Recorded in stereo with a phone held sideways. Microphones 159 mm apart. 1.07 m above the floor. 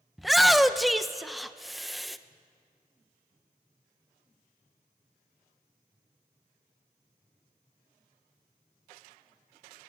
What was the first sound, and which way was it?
A shout, centre (ahead or behind).